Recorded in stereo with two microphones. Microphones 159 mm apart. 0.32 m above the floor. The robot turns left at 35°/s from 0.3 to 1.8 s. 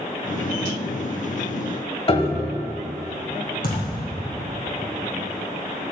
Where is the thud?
70° left (ahead or behind), 3 m.